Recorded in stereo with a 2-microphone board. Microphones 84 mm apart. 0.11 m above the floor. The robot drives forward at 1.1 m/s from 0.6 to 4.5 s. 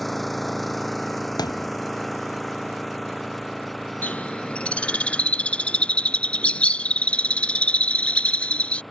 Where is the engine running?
Centre (ahead or behind).